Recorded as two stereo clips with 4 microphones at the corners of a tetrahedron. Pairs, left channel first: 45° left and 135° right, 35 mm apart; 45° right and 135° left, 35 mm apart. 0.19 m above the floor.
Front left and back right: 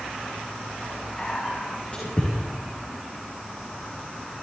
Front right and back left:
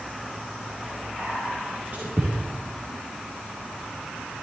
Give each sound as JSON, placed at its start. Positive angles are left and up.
{"t": 1.2, "sound": "whispering", "azimuth_deg": 100, "distance_m": 3.5}